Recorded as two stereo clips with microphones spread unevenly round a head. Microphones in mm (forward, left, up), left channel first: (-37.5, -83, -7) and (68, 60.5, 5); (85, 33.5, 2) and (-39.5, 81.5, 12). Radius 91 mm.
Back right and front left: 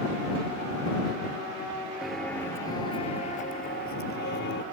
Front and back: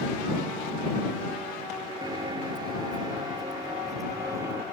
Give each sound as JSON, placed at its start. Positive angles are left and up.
{"t": 2.0, "sound": "footsteps", "azimuth_deg": 135}